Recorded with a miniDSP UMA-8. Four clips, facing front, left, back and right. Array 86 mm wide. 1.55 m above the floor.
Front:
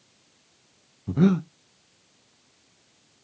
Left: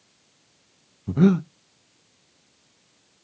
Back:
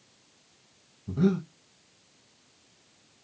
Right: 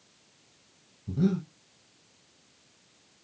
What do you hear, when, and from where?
1.1 s breathing: 55° left, 0.6 m